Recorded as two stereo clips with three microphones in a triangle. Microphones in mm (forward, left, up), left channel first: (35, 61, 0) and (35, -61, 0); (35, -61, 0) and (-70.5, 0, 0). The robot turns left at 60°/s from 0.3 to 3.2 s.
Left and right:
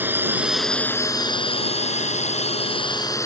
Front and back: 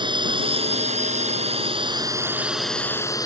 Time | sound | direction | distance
0.0 | a drone | 165° right | ?